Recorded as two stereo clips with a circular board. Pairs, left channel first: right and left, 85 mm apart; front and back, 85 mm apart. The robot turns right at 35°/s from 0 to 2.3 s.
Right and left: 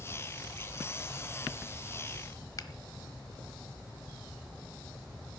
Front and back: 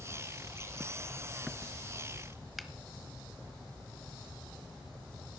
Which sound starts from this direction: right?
A finger snap, at 2.6 s.